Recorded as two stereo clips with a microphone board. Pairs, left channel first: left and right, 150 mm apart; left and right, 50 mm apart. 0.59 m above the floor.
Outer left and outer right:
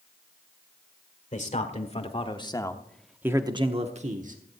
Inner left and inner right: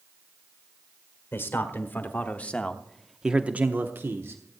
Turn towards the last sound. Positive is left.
turn(degrees=-60)  # may be behind; listen again after turning